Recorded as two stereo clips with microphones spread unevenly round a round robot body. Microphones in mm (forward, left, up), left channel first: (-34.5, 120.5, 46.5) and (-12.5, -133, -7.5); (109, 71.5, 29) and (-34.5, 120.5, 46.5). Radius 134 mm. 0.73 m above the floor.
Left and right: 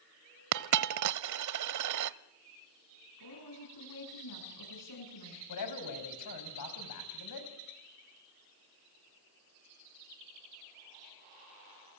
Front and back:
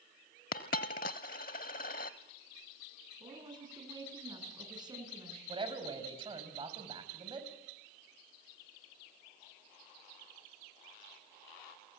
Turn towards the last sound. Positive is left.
turn(degrees=105)